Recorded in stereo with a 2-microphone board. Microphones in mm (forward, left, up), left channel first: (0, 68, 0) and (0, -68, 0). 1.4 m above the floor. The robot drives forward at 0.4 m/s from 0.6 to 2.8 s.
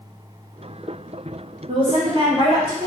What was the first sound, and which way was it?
A woman speaking, 45° right (ahead or behind).